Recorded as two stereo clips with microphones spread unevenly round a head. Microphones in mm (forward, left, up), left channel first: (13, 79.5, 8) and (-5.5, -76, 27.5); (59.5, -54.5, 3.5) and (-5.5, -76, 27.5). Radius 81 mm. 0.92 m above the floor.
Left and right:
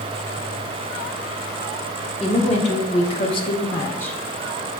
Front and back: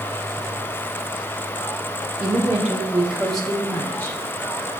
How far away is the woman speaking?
About 1.2 m.